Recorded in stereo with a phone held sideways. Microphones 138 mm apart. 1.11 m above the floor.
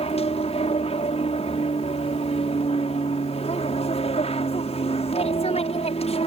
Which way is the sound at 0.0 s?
50° left (ahead or behind).